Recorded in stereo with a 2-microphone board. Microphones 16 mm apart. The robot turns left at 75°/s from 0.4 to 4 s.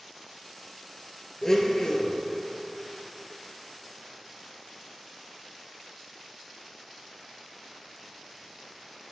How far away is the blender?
About 1.2 m.